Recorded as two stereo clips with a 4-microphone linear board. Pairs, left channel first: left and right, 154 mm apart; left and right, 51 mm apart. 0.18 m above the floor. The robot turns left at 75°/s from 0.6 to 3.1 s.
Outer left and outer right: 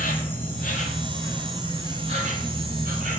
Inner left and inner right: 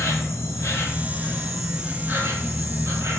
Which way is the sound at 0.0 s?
70° left.